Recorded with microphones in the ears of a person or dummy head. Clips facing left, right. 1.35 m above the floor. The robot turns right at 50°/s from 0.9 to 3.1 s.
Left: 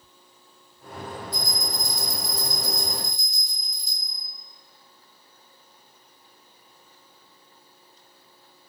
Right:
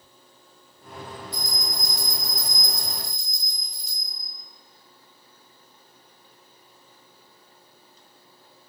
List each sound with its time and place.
1.3 s a bell: 80° left, 1.8 m; by 4.3 s 165° left, 1.8 m